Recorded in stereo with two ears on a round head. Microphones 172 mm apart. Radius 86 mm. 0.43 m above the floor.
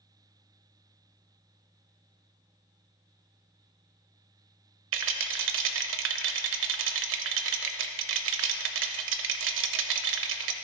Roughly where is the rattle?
Right.